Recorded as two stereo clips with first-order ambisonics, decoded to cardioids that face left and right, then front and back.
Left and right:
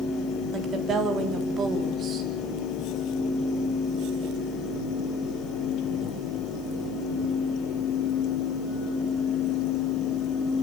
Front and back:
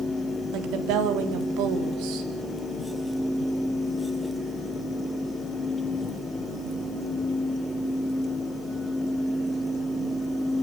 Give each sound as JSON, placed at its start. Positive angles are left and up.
{"t": 0.5, "sound": "a woman speaking", "azimuth_deg": -155, "distance_m": 4.0}